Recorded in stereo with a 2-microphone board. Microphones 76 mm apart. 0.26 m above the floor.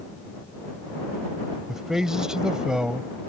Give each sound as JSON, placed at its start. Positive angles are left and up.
{"t": 1.7, "sound": "a man speaking", "side_deg": -5}